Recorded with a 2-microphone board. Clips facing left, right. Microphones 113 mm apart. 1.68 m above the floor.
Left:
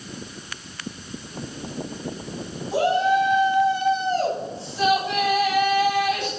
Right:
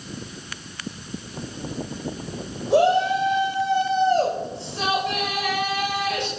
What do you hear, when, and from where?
2.7 s a shout: 70° right (ahead or behind), 9 m